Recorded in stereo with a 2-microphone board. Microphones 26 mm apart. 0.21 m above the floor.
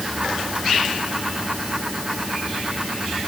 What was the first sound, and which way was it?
Only background noise.